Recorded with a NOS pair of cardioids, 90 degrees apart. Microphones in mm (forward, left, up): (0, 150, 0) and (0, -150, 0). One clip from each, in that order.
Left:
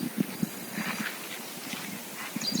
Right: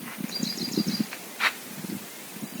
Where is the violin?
I don't hear a violin.